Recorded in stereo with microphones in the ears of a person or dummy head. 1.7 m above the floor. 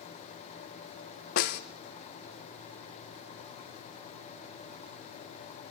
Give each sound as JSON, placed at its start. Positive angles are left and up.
{"t": 1.4, "sound": "a snare drum", "side_deg": 55, "distance_m": 1.2}